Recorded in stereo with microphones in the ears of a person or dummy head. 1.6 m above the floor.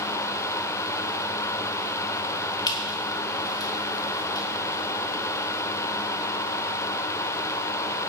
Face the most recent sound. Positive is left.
turn(degrees=30)  # may be behind; listen again after turning